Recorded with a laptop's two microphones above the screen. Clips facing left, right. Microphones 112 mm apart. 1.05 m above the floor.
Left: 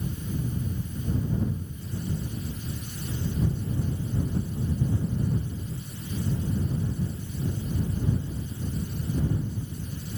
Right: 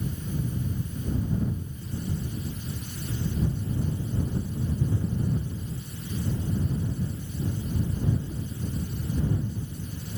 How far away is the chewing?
No chewing in this recording.